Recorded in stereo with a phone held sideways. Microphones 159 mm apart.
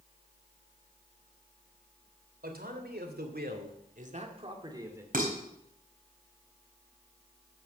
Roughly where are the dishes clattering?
Right.